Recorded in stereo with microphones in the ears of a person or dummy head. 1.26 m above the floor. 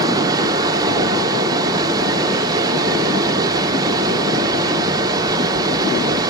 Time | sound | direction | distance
0.0 | a fan | 20° right (ahead or behind) | 0.8 m